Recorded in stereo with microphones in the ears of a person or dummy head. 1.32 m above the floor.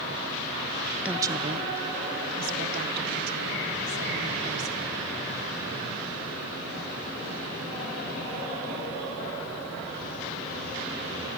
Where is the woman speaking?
5° right (ahead or behind), 0.6 m; by 5.0 s 65° right (ahead or behind), 3.5 m.